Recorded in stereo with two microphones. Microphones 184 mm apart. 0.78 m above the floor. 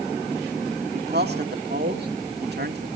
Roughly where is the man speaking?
Right.